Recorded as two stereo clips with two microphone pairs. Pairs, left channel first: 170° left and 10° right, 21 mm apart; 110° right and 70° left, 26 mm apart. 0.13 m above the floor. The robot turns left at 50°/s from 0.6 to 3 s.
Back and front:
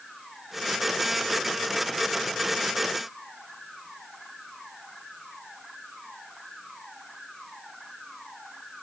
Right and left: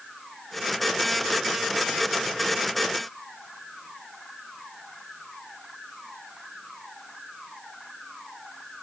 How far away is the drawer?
I don't hear a drawer.